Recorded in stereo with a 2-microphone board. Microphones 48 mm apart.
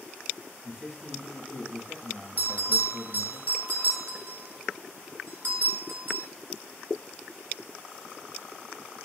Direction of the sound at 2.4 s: 45° right (ahead or behind).